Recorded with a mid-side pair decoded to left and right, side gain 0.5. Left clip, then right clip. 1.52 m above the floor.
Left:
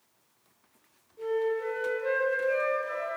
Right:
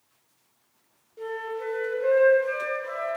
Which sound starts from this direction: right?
A flute, at 1.2 s.